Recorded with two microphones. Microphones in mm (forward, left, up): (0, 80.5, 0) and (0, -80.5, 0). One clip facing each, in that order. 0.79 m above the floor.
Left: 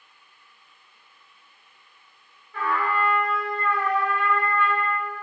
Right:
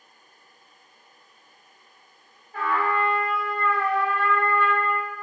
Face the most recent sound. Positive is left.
turn(degrees=-40)  # may be behind; listen again after turning